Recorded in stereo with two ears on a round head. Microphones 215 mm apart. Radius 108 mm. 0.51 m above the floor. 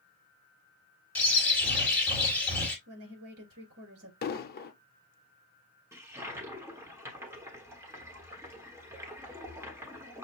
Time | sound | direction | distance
1.1 | a bird | 5° left (ahead or behind) | 2 m
2.9 | a woman speaking | 65° right (ahead or behind) | 3.5 m
4.2 | an explosion | 40° left (ahead or behind) | 0.6 m
5.9 | a toilet flushing | 10° right (ahead or behind) | 1.2 m